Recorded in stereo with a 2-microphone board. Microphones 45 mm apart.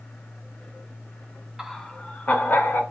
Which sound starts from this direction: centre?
Laughter, at 1.6 s.